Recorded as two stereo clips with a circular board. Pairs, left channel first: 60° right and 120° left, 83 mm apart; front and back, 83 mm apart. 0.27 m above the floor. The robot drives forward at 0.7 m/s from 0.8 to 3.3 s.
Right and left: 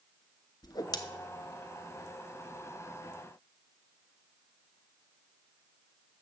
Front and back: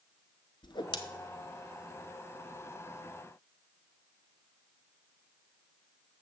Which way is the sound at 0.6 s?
20° right.